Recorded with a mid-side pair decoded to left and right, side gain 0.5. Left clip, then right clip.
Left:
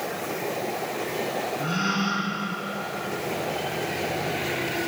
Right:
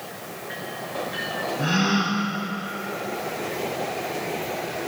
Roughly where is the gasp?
Ahead right.